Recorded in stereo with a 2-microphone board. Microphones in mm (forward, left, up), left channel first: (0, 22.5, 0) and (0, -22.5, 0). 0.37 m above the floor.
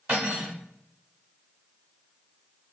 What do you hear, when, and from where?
0.1 s cutlery clinking: 35° right (ahead or behind), 1.3 m